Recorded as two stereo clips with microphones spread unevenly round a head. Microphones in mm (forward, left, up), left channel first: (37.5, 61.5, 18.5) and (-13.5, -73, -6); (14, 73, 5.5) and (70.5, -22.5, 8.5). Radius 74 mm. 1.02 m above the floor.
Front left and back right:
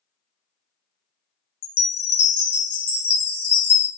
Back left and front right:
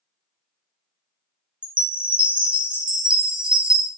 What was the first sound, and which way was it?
A chime, 20° left.